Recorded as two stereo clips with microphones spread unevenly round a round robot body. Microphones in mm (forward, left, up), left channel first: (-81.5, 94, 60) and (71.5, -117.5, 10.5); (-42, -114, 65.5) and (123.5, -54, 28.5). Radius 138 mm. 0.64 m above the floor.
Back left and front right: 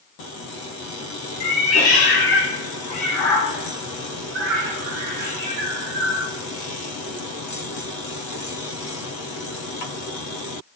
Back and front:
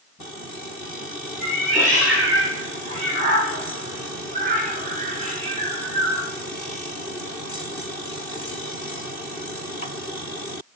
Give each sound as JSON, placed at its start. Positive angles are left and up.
{"t": 1.4, "sound": "a cat meowing", "azimuth_deg": 110, "distance_m": 1.3}